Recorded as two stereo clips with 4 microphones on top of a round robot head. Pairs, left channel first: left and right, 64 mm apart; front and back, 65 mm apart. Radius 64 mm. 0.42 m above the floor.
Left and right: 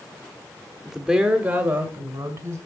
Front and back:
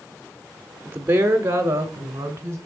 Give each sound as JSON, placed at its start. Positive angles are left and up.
{"t": 0.8, "sound": "a woman speaking", "azimuth_deg": -170, "distance_m": 0.8}